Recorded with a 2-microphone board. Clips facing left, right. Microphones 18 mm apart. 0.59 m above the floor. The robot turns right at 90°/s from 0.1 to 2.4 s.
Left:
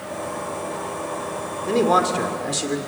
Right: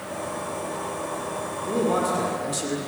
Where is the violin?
I don't hear a violin.